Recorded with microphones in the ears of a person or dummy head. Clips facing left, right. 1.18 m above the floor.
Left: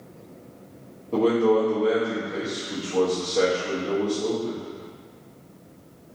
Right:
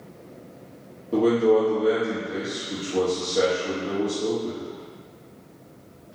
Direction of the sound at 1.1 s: 15° right (ahead or behind).